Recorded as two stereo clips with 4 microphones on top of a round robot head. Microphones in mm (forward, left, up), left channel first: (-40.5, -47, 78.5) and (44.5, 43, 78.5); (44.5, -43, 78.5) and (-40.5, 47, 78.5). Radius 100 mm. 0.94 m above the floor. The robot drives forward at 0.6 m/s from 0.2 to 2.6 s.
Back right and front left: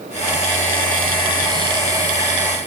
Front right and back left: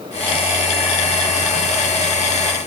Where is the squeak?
I don't hear a squeak.